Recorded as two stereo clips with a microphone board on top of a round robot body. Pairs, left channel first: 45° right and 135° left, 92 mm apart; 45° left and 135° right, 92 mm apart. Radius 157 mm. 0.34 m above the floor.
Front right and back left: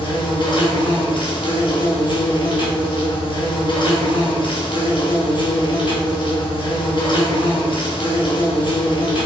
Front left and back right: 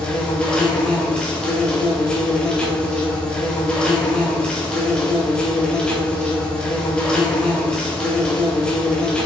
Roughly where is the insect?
Ahead right.